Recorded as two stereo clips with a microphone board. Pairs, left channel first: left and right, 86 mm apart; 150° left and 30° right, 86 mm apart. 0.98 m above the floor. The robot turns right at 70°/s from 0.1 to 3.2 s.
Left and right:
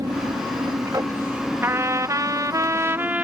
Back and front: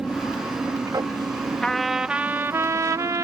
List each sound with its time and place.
0.0 s an aircraft: 110° right; by 3.2 s 95° left
1.6 s a trumpet: 135° right; by 3.2 s 25° right